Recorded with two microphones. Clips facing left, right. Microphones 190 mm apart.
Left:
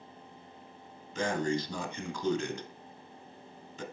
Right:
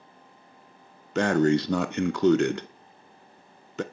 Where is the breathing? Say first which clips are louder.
Right 10 dB; 70° right (ahead or behind), 1.0 m.